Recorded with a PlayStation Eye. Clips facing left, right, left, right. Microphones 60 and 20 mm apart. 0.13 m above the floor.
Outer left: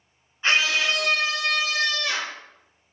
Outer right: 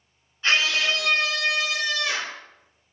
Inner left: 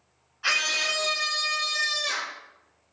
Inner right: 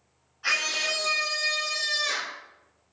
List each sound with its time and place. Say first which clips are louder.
0.4 s a scream: outer left 1 dB, inner left 1 dB; 25° left (ahead or behind), 1.4 m; by 2.4 s 15° right (ahead or behind), 1.8 m